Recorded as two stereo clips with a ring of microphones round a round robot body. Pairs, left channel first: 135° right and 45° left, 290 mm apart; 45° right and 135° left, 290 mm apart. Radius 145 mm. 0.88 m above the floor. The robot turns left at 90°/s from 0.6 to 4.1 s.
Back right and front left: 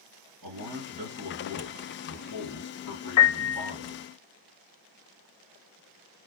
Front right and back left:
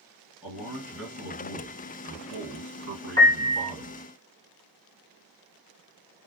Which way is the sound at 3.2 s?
120° right.